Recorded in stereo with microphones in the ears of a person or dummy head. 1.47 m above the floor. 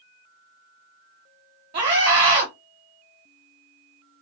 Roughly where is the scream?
Right.